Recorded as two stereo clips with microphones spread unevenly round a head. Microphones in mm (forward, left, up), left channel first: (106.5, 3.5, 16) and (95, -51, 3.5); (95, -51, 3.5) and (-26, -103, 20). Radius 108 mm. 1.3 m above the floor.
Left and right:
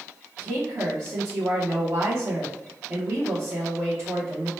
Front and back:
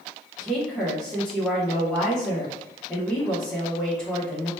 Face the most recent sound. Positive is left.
turn(degrees=-65)